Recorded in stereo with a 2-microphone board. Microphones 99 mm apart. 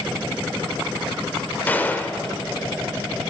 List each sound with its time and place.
1.7 s a gunshot: 20° left (ahead or behind), 0.5 m